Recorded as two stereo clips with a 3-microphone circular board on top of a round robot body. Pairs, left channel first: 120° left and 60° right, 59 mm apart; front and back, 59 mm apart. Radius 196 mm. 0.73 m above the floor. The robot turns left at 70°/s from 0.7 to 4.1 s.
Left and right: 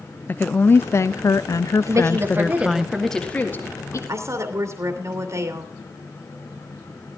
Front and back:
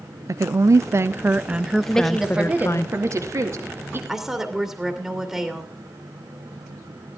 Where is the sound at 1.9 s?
70° right, 2 m; by 4.0 s 140° left, 2 m.